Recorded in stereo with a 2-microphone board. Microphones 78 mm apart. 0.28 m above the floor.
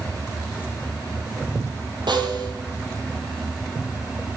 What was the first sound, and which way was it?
A snare drum, 85° right.